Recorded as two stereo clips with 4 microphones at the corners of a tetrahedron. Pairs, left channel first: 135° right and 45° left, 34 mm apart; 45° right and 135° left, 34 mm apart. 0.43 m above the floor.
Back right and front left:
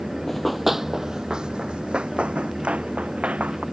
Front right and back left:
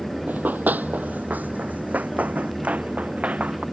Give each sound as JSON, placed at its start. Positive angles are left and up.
{"t": 0.3, "sound": "running footsteps", "azimuth_deg": 140}